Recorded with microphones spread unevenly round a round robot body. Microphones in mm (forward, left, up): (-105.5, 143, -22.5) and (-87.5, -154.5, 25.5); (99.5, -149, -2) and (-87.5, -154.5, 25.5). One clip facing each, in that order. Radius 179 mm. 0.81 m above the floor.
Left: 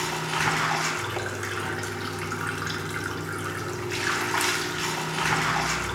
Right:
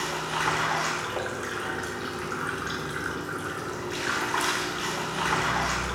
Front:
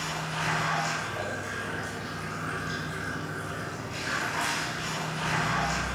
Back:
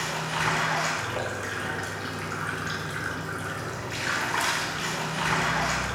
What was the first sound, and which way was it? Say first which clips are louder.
Running water: left 1 dB, back 3 dB; 145° left.